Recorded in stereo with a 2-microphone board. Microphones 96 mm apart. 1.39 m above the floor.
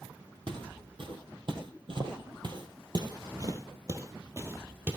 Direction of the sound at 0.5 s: 55° right (ahead or behind).